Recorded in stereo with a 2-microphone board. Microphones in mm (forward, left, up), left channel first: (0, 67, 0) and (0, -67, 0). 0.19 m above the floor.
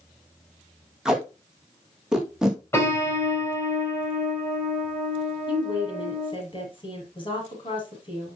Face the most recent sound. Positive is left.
turn(degrees=40)  # may be behind; listen again after turning